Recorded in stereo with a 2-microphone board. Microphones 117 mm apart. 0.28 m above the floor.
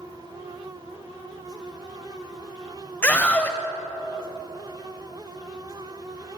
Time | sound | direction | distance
3.0 | a scream | 15° left (ahead or behind) | 0.9 m